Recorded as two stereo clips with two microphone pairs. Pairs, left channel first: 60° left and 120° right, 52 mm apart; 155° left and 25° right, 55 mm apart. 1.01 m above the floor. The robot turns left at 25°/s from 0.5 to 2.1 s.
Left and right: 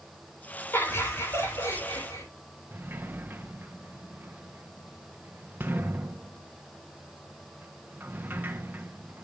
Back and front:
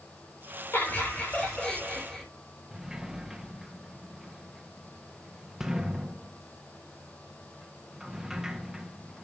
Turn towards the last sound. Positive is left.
turn(degrees=-100)